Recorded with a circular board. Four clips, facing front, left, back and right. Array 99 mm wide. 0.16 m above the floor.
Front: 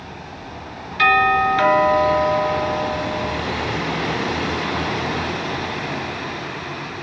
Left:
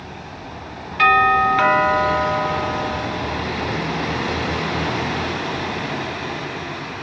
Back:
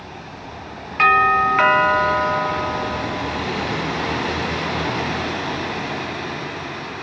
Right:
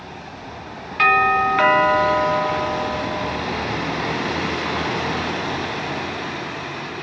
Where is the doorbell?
170° right, 1.6 m.